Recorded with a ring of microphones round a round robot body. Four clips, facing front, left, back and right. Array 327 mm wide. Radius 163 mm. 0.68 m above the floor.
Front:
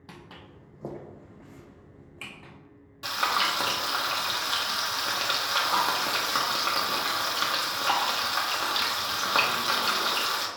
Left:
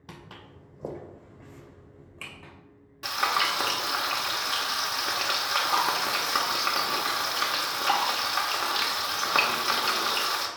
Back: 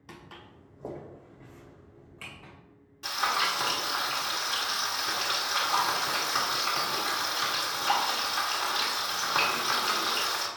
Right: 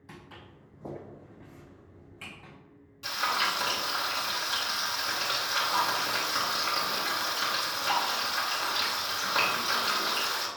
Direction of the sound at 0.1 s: 65° left.